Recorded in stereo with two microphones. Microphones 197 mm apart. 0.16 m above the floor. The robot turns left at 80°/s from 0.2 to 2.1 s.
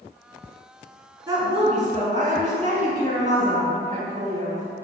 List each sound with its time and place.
1.3 s a woman speaking: 20° right, 1.4 m; by 4.7 s 90° right, 1.4 m